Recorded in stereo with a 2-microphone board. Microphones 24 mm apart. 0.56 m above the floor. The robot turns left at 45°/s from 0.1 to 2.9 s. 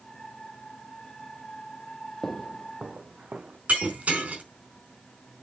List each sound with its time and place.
2.2 s footsteps: 15° left (ahead or behind), 0.7 m; by 3.6 s 65° right (ahead or behind), 1.8 m
3.7 s breaking glass: 80° right, 4 m